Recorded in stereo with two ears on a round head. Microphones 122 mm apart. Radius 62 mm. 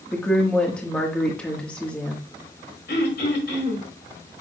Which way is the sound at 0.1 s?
10° left (ahead or behind).